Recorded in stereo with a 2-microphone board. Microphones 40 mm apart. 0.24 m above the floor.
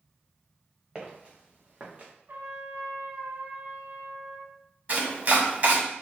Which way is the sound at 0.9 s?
20° right (ahead or behind).